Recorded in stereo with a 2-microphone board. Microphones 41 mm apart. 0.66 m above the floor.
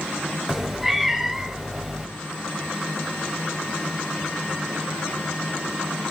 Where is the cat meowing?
10° right (ahead or behind), 0.9 m.